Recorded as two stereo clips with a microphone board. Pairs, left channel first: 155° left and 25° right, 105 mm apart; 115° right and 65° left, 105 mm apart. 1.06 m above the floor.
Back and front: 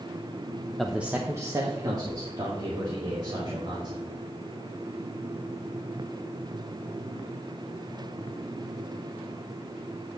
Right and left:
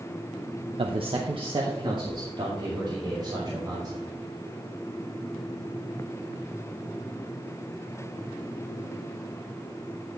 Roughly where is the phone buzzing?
I don't hear a phone buzzing.